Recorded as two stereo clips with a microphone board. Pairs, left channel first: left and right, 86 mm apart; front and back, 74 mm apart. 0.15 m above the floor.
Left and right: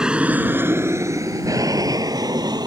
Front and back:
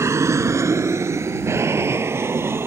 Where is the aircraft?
165° right; by 2.7 s 125° right.